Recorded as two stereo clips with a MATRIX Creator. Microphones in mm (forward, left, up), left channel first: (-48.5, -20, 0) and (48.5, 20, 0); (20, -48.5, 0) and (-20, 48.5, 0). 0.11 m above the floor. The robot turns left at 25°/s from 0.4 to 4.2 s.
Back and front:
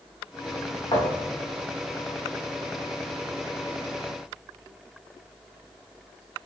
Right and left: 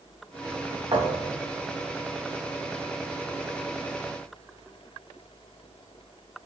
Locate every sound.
0.9 s a thud: 160° left, 4.5 m; by 1.5 s 145° left, 4.5 m